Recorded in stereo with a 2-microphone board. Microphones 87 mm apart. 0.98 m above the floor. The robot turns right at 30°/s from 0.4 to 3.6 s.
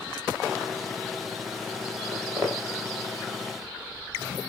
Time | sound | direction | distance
2.1 | footsteps | 25° right (ahead or behind) | 5 m